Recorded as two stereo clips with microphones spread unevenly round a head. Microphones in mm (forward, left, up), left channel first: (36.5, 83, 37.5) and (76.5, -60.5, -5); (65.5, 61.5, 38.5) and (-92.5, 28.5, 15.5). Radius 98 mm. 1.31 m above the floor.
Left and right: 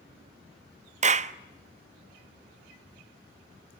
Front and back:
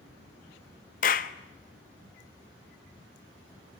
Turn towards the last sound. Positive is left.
turn(degrees=-25)